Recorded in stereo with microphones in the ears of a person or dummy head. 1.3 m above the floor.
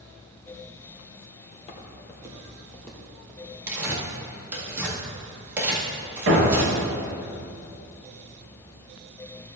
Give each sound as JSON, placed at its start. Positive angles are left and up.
{"t": 1.5, "sound": "footsteps", "side_deg": 35, "distance_m": 1.9}
{"t": 3.7, "sound": "tearing paper", "side_deg": -5, "distance_m": 2.0}
{"t": 6.3, "sound": "a thud", "side_deg": -70, "distance_m": 3.0}